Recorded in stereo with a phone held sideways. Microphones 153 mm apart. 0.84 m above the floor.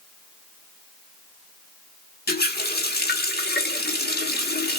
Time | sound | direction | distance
2.3 | a running tap | 75° left (ahead or behind) | 1.3 m